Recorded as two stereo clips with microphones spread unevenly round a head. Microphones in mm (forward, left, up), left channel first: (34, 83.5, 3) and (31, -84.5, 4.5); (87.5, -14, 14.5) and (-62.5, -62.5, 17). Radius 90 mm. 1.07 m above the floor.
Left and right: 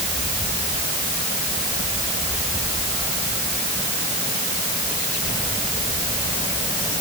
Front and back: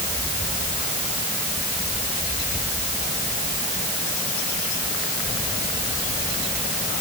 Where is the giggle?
I don't hear a giggle.